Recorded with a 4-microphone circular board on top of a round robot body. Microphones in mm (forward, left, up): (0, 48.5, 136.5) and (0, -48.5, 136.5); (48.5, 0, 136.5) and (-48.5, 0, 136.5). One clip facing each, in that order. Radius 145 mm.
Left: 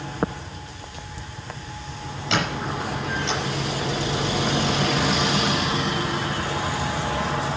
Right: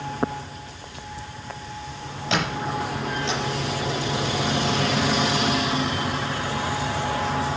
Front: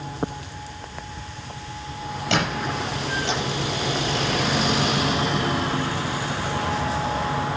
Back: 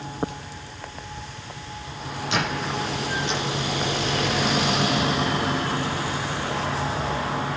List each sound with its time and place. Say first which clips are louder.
2.3 s a squeak: even, front 2 dB; 5° right, 6.5 m